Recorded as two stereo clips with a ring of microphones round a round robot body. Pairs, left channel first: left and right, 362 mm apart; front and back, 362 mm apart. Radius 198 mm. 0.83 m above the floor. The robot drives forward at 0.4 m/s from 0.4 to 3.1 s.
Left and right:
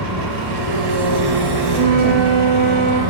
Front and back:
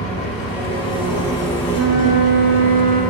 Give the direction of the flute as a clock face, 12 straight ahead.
5 o'clock.